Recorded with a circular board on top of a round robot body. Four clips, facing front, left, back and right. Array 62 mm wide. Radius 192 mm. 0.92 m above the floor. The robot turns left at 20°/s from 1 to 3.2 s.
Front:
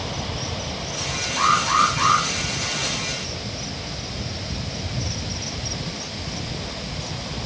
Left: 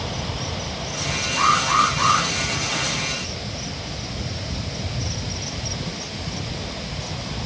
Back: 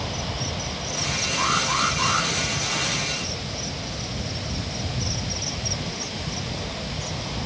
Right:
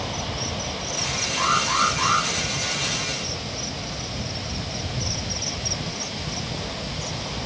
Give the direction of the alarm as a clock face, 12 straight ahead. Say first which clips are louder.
Left 4 dB, front 6 dB; 10 o'clock.